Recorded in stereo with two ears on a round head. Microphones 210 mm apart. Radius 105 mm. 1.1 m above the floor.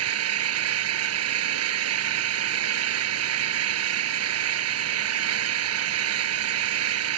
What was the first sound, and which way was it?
An engine running, 65° right (ahead or behind).